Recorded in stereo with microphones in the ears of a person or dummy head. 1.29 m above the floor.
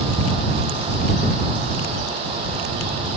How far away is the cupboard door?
No cupboard door in this recording.